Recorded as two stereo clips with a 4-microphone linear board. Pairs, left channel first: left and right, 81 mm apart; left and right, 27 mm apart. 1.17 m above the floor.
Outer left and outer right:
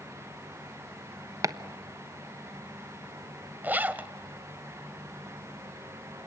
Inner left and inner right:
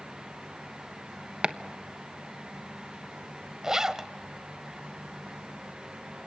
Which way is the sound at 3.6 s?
20° right (ahead or behind).